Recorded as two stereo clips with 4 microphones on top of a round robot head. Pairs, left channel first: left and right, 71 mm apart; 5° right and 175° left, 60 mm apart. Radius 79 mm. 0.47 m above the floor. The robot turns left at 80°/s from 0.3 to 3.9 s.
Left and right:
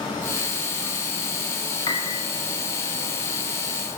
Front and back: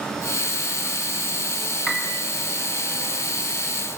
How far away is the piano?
About 4.5 m.